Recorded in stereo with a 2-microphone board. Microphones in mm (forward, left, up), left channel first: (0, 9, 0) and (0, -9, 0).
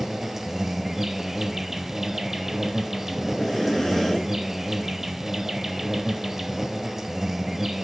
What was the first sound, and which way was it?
An insect, 25° right (ahead or behind).